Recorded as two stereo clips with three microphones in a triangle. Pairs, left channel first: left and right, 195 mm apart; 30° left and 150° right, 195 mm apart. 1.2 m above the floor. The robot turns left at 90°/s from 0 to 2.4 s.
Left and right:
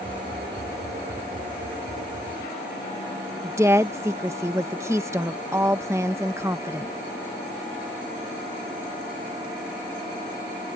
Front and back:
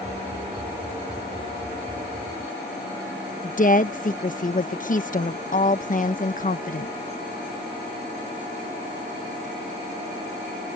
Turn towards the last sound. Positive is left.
turn(degrees=-15)